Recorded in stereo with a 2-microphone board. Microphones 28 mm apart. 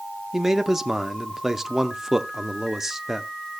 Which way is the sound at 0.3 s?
20° right (ahead or behind).